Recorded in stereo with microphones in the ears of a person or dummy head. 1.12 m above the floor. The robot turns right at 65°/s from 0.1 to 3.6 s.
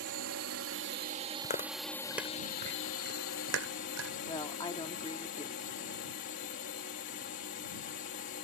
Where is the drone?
110° right; by 8.5 s 115° left.